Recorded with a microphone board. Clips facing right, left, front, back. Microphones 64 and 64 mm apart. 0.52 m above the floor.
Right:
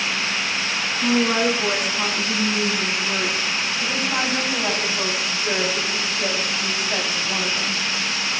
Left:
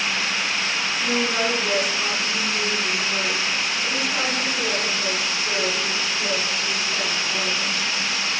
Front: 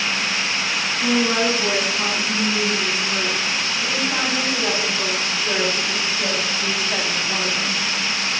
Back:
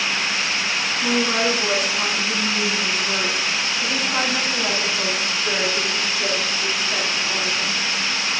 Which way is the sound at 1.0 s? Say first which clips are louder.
Right 5 dB, front 2 dB; 100° right.